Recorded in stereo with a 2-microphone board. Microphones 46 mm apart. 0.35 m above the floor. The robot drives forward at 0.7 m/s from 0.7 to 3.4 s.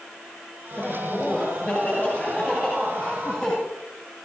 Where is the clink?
I don't hear a clink.